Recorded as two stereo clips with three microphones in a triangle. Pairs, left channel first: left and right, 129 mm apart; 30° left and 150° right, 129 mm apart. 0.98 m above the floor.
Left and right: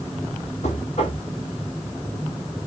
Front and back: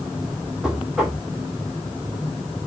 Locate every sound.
0.6 s knocking: 125° left, 2.5 m